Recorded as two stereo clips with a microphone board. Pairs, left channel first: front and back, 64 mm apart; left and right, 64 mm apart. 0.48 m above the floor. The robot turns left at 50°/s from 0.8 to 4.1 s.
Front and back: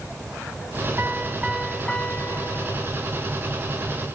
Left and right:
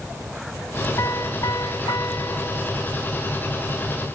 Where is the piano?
125° left, 1.2 m; by 3.1 s 20° left, 1.2 m.